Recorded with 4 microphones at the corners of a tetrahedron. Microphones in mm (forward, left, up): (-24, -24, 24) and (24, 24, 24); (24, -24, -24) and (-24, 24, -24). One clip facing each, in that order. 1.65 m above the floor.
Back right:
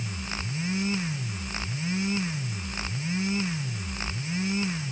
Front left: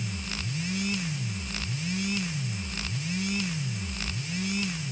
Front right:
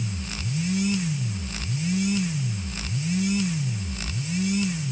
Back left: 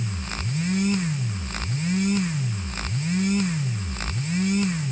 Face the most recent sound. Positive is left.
No sound to turn to.